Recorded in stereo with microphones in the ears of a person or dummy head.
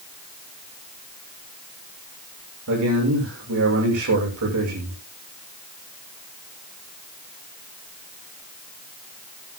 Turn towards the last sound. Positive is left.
turn(degrees=-70)  # may be behind; listen again after turning